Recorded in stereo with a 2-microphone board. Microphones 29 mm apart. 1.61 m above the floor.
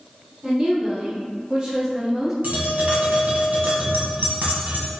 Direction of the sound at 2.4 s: 55° right (ahead or behind).